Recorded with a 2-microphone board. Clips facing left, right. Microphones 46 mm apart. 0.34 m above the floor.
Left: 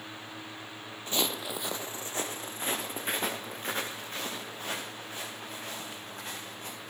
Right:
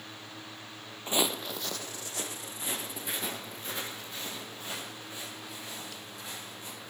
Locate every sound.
1.1 s footsteps: 25° right (ahead or behind), 0.6 m; by 6.9 s 50° left (ahead or behind), 6.5 m